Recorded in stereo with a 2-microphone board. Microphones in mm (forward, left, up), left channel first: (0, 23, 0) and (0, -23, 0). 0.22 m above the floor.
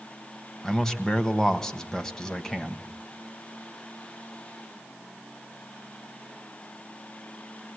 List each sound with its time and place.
0.6 s a man speaking: 10° left (ahead or behind), 1.2 m